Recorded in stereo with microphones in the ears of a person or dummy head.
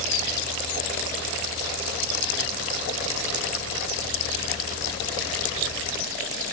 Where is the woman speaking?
I don't hear a woman speaking.